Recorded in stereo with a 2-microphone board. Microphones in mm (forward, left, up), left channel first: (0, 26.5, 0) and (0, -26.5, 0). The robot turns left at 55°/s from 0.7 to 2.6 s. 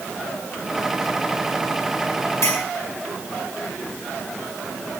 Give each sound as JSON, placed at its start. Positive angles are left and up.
{"t": 2.4, "sound": "a clink", "side_deg": 70, "distance_m": 3.5}